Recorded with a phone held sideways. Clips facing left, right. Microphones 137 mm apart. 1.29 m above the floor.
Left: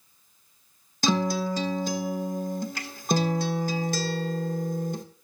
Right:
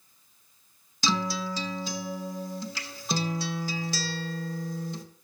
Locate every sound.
1.0 s a guitar: 50° left (ahead or behind), 1.3 m